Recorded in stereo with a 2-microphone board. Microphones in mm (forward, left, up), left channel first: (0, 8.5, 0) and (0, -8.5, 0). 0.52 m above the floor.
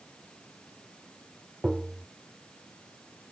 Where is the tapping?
25° right (ahead or behind).